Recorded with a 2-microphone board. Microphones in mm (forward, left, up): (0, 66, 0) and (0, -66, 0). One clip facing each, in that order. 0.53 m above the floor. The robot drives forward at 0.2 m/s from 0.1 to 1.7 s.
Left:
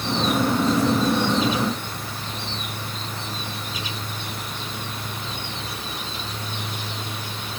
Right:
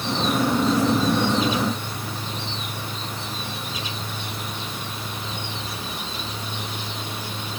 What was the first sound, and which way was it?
Only background noise.